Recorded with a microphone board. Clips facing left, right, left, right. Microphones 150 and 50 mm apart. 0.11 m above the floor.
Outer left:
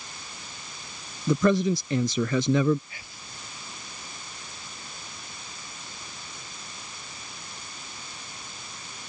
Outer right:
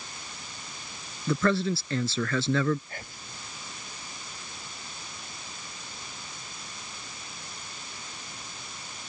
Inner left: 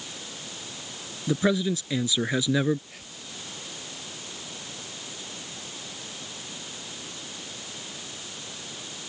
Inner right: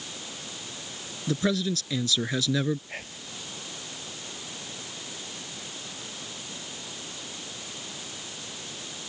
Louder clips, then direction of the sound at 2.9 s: Outer right 4 dB, inner right 5 dB; 55° right (ahead or behind).